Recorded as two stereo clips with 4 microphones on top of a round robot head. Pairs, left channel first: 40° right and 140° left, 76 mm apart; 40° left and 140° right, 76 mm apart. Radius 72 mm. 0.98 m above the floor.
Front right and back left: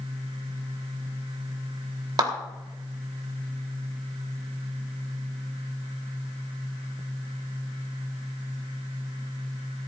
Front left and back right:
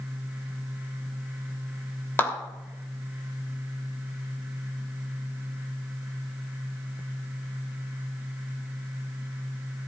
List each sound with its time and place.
2.2 s a clap: 105° left, 3.5 m